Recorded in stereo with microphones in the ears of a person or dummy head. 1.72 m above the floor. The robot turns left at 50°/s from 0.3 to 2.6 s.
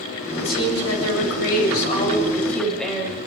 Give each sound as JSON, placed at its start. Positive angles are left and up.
{"t": 0.4, "sound": "a woman speaking", "azimuth_deg": 115, "distance_m": 8.5}